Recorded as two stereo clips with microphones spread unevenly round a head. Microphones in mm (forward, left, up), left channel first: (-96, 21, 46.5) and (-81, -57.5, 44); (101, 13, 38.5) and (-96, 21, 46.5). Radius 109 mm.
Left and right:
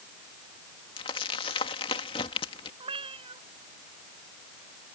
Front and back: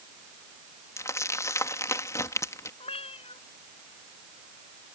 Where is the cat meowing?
65° right.